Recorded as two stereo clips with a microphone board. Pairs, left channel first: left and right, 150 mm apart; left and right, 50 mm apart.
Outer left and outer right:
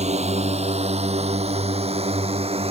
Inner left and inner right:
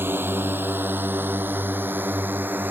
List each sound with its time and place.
0.0 s a drone: 45° right (ahead or behind); by 2.7 s 40° right (ahead or behind)